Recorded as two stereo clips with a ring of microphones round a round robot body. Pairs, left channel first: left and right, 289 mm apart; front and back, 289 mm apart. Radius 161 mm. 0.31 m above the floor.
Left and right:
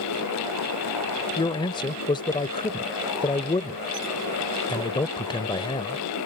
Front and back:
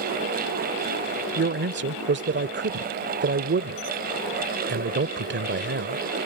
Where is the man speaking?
155° left.